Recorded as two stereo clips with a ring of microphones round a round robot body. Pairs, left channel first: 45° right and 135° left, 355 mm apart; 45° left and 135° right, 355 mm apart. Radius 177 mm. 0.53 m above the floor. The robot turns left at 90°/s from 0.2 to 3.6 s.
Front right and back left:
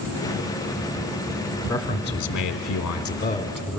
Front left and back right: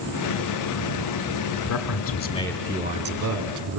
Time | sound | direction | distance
1.7 | a man speaking | 40° left | 1.3 m